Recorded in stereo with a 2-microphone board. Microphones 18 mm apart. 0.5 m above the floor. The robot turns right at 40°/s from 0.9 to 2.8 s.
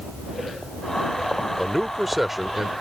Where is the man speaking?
165° left; by 2.7 s 145° right.